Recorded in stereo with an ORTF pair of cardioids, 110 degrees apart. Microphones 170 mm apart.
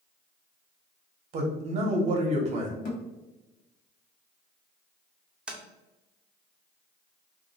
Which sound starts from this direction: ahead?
Tapping, at 5.5 s.